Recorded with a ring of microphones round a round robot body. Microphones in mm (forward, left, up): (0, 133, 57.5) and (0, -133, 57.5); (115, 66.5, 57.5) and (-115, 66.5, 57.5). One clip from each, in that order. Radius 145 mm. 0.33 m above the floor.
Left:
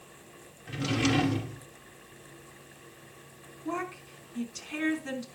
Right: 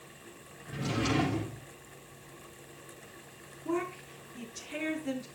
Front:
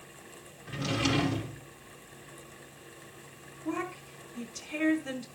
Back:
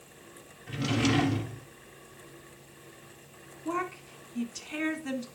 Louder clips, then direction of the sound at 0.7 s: Left 3 dB, back 1 dB; 105° left.